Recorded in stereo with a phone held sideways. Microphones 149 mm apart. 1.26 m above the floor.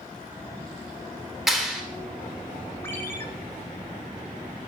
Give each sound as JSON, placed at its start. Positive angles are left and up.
{"t": 1.5, "sound": "a clap", "side_deg": 0, "distance_m": 3.5}
{"t": 2.8, "sound": "a ringtone", "side_deg": 15, "distance_m": 2.0}